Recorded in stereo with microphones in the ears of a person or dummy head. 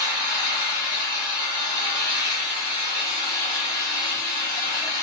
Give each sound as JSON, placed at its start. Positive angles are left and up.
{"t": 0.0, "sound": "an engine running", "side_deg": 20, "distance_m": 1.1}